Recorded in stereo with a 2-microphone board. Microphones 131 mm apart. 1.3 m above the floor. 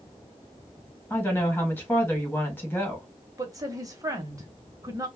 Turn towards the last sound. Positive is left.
turn(degrees=-25)  # may be behind; listen again after turning